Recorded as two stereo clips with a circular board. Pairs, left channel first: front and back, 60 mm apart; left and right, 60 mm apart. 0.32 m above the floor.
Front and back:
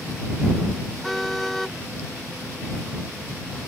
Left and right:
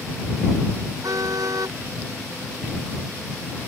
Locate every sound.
1.0 s a car horn: 85° right